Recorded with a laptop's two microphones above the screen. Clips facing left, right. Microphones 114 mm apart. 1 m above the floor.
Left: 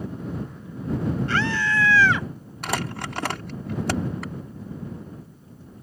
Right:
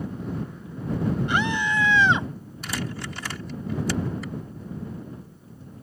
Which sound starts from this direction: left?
Crumpling, at 2.6 s.